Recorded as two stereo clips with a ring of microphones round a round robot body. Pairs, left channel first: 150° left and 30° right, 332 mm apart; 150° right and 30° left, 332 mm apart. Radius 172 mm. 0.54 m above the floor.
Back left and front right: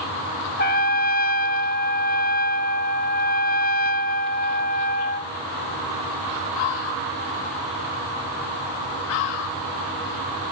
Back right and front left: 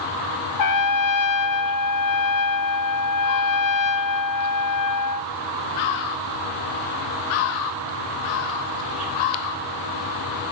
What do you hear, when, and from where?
0.6 s a trumpet: 150° right, 0.6 m